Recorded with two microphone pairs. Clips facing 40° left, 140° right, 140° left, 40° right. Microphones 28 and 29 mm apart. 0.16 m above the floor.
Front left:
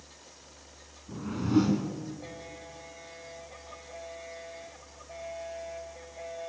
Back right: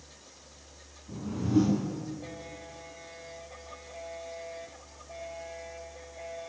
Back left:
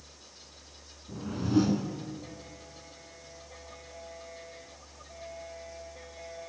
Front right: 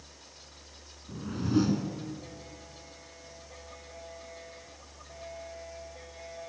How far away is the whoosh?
About 2 m.